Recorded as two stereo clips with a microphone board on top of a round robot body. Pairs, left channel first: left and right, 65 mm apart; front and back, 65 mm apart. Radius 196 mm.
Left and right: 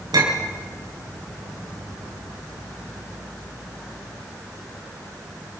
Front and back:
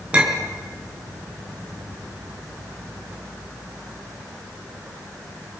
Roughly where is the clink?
Right.